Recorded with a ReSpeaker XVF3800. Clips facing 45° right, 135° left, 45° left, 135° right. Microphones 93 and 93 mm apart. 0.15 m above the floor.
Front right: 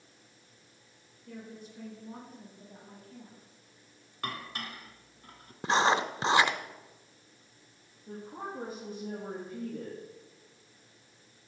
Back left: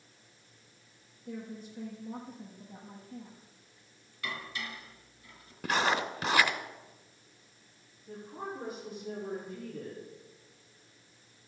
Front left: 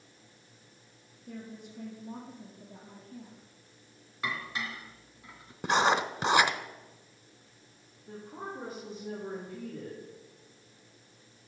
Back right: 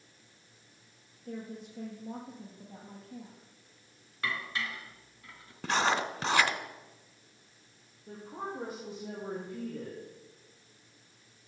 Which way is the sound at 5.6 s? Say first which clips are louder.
Front right 4 dB, front left 3 dB; 10° right.